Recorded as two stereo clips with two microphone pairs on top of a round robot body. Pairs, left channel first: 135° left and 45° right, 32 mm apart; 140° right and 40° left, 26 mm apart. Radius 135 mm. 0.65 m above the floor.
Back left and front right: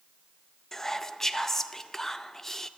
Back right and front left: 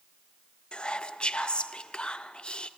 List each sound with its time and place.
0.7 s whispering: 155° right, 0.7 m